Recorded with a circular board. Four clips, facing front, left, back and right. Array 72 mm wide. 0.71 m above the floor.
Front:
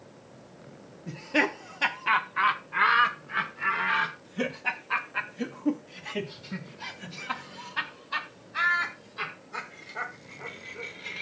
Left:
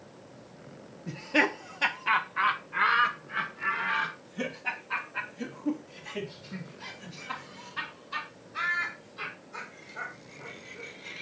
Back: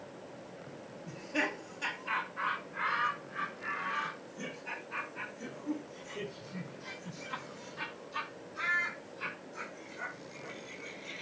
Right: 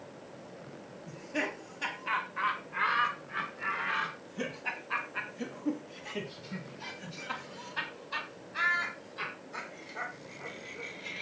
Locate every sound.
1.1 s laughter: 55° left, 1.0 m; by 11.2 s 10° right, 5.5 m